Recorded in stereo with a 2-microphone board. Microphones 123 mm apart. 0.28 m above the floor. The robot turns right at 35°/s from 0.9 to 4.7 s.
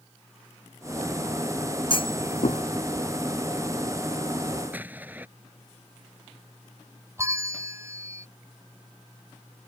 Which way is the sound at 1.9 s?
45° left (ahead or behind).